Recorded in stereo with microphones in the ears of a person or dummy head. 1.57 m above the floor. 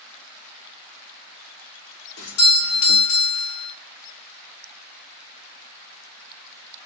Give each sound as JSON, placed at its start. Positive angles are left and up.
{"t": 2.2, "sound": "a doorbell", "side_deg": 85, "distance_m": 0.9}